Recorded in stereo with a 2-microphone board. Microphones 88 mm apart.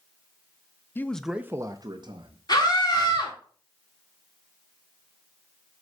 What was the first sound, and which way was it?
A man speaking, 25° left (ahead or behind).